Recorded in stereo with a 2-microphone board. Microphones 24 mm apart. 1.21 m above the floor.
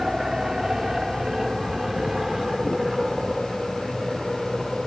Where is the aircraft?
20° right (ahead or behind); by 4.9 s 10° right (ahead or behind).